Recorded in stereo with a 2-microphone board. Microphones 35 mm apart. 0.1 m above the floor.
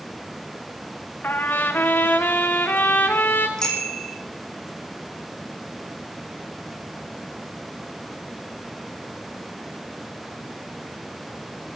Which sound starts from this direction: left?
A trumpet, at 1.2 s.